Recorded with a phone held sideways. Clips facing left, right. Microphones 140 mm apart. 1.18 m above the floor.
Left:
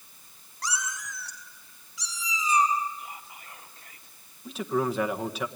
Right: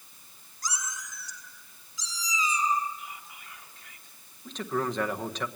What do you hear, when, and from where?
0.6 s a cat meowing: 75° left (ahead or behind), 2.5 m; by 2.8 s 60° left (ahead or behind), 5.5 m
3.0 s whispering: 35° left (ahead or behind), 3.5 m
4.5 s a man speaking: 5° left (ahead or behind), 1.3 m